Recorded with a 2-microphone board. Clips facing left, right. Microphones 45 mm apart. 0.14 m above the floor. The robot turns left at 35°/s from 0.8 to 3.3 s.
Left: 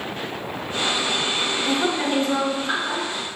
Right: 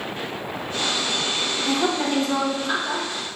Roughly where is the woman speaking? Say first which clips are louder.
Right 1 dB; left.